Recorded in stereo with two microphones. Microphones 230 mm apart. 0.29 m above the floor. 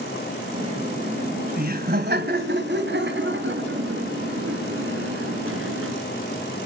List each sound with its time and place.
0.5 s laughter: 25° right (ahead or behind), 1.7 m; by 6.0 s 70° right (ahead or behind), 4.5 m